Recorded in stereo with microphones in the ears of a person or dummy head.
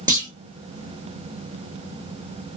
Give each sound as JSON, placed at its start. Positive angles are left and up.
{"t": 0.1, "sound": "a clunk", "side_deg": -20, "distance_m": 0.8}